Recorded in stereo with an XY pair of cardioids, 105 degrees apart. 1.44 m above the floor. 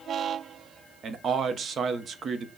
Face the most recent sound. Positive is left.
turn(degrees=-45)